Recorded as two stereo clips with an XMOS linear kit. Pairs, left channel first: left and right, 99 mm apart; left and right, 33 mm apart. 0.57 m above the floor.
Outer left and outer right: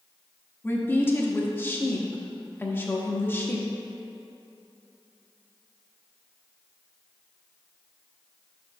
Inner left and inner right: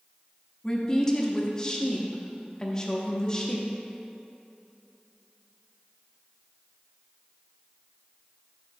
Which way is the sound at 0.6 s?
20° left (ahead or behind).